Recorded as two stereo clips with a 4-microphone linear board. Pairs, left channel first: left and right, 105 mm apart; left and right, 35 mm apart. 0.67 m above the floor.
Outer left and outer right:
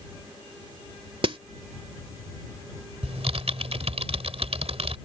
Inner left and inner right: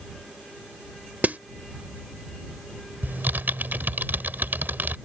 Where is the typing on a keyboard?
75° right (ahead or behind).